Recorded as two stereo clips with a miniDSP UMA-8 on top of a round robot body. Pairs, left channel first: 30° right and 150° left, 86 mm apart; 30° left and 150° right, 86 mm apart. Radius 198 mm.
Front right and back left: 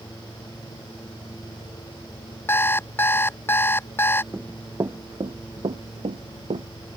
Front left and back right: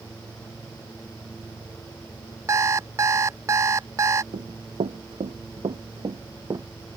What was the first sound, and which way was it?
An alarm clock, 95° right.